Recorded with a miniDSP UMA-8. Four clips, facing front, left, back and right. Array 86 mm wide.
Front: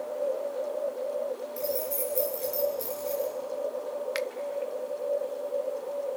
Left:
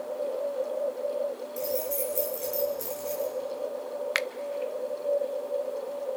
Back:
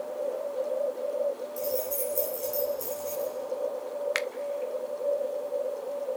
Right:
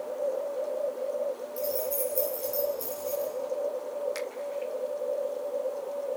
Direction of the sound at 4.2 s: 110° left.